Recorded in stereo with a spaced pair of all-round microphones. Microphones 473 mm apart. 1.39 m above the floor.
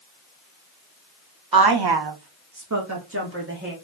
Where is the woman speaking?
45° right (ahead or behind), 0.7 m; by 3.7 s 20° right (ahead or behind), 1.5 m.